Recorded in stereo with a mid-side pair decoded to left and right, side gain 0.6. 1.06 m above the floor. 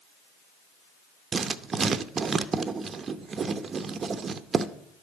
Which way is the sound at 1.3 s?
35° right.